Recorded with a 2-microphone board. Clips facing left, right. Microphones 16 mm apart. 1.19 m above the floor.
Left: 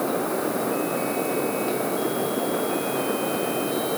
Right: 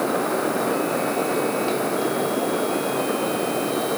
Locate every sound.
Only background noise.